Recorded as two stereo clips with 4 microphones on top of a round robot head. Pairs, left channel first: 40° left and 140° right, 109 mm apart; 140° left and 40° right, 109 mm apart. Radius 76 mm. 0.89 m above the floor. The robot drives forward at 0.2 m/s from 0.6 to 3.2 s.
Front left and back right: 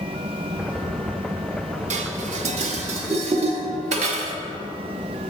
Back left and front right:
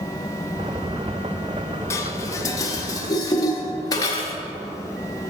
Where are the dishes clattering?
155° right, 0.6 m; by 4.4 s 160° right, 0.9 m.